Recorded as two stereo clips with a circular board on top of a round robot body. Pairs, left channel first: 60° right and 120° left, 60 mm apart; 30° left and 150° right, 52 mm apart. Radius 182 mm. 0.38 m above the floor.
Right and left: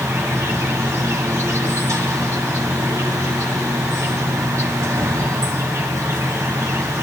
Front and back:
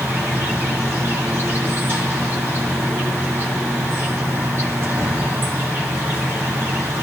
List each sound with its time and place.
0.0 s an insect: 160° left, 1.7 m